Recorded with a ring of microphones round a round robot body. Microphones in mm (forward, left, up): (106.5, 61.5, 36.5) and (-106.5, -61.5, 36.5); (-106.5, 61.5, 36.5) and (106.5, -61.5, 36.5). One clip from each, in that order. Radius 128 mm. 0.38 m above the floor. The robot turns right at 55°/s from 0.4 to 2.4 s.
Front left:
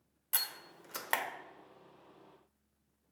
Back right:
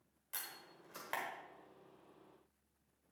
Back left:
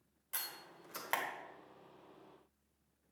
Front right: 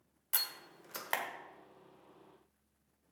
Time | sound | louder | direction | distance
0.3 | a door slam | front left 11 dB, front right 7 dB | 5° left | 1.2 m